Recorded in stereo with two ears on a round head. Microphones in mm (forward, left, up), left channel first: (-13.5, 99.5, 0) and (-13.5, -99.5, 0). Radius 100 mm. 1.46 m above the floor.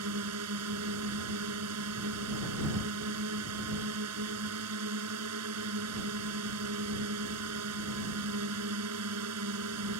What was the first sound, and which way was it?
A drone, 85° right.